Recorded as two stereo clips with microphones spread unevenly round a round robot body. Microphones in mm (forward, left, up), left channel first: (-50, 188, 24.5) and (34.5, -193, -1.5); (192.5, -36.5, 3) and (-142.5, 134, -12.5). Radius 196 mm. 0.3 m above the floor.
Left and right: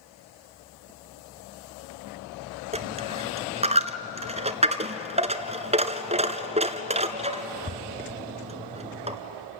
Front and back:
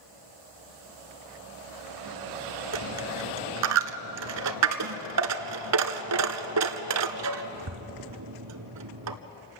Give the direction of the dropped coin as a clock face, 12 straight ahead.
5 o'clock.